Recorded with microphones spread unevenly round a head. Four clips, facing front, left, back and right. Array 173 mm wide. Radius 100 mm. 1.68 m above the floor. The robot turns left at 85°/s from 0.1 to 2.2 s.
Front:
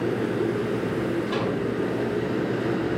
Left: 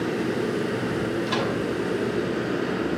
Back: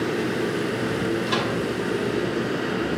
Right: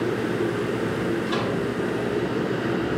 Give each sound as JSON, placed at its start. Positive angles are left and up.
{"t": 1.3, "sound": "a microwave", "azimuth_deg": 145, "distance_m": 3.0}